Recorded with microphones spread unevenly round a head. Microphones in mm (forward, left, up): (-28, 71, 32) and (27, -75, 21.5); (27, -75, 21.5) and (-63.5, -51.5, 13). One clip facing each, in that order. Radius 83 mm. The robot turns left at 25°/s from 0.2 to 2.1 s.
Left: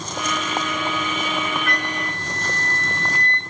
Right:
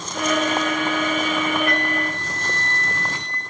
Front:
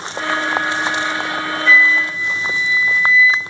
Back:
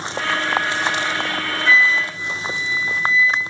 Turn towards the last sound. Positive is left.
turn(degrees=-140)